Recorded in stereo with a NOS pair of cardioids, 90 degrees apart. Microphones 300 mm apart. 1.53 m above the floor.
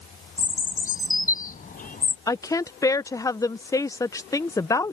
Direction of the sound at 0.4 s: 30° left.